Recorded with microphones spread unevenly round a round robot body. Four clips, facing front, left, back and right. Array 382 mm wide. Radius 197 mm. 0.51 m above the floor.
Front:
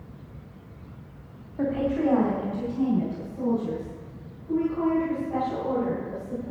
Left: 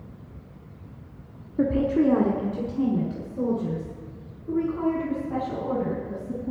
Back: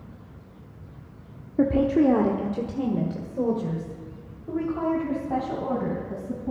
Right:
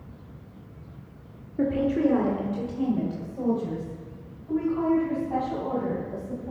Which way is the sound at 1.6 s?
160° left.